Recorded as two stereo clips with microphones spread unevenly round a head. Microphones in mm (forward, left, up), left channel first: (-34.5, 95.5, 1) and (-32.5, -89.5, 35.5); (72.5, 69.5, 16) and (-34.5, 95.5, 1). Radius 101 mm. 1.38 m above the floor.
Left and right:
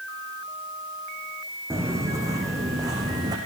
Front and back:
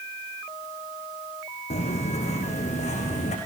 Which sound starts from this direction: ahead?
Footsteps, at 1.7 s.